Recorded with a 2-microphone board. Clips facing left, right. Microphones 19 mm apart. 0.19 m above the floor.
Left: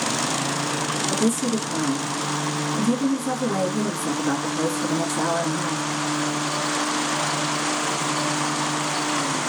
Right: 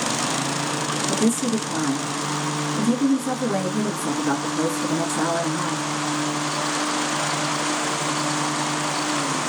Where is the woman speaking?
5° right (ahead or behind), 2 m.